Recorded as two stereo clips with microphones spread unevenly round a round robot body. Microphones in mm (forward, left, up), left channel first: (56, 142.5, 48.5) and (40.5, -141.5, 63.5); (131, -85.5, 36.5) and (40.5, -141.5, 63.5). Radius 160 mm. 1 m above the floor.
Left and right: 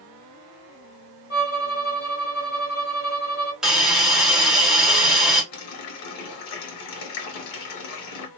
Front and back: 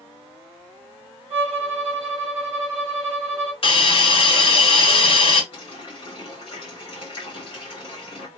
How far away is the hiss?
About 1.0 m.